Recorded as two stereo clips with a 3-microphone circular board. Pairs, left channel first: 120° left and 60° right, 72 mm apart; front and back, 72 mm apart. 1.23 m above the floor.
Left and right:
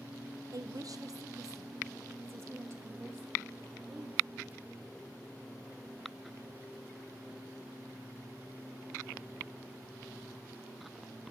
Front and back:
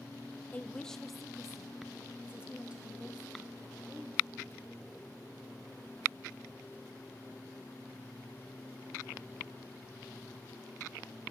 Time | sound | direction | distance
0.5 | a woman speaking | 65° right | 0.8 m